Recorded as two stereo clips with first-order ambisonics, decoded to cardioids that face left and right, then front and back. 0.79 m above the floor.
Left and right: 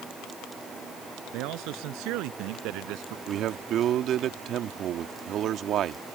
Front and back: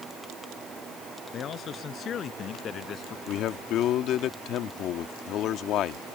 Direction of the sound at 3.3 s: 40° right.